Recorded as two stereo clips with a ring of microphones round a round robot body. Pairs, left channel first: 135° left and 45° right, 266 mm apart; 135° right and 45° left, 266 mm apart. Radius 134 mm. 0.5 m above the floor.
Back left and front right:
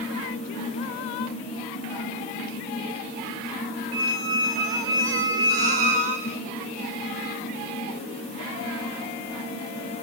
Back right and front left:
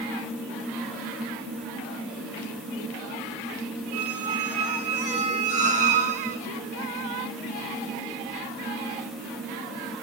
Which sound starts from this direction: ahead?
A squeak, at 3.9 s.